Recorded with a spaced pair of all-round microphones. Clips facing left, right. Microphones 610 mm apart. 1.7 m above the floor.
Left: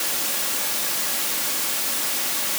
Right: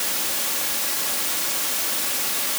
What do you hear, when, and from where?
Only background noise.